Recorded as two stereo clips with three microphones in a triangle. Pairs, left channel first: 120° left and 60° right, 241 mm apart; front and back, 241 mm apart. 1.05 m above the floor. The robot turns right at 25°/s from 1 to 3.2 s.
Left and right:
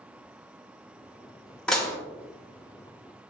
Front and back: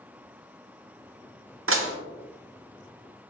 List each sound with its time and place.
1.7 s dishes clattering: 155° right, 0.6 m; by 2.0 s 145° right, 0.6 m